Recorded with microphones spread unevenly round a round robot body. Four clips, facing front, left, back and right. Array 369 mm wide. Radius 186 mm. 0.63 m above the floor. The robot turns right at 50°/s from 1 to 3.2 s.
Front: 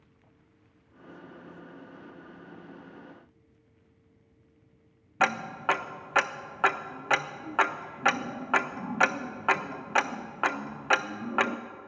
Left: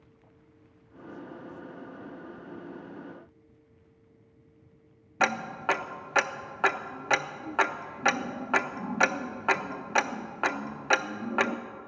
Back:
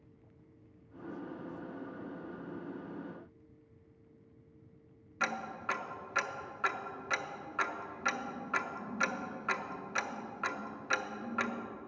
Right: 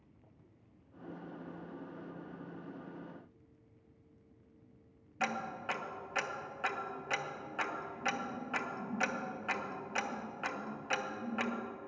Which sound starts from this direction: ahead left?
Ticking, at 5.2 s.